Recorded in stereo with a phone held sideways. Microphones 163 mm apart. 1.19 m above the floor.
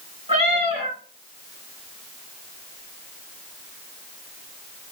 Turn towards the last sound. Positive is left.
turn(degrees=-40)  # may be behind; listen again after turning